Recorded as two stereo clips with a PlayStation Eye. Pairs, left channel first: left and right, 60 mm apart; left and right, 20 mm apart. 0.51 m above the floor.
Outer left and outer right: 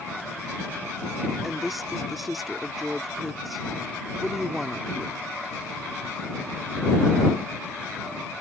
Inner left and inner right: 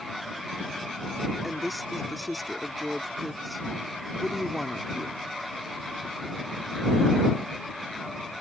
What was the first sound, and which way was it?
A woman speaking, centre (ahead or behind).